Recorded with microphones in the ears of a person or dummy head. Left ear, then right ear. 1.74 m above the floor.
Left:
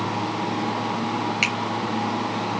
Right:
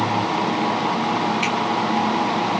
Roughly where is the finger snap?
Left.